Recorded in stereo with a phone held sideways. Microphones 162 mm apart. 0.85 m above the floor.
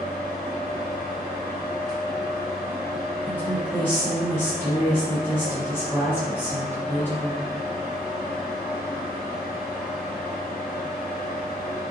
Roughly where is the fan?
Left.